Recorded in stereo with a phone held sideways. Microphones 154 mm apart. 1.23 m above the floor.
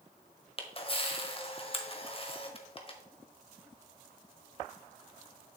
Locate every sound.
0.6 s a camera shutter: 35° left (ahead or behind), 1.3 m